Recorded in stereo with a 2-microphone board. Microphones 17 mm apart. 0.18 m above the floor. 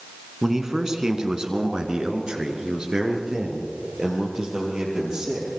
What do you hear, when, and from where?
0.4 s a man speaking: 30° right (ahead or behind), 2 m; by 5.5 s 40° right (ahead or behind), 6 m